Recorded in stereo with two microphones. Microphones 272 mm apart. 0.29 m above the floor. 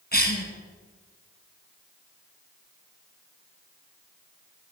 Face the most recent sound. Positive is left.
turn(degrees=35)  # may be behind; listen again after turning